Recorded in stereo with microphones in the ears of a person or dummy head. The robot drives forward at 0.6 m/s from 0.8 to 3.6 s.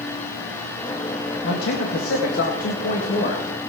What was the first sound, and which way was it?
A man speaking, 70° left (ahead or behind).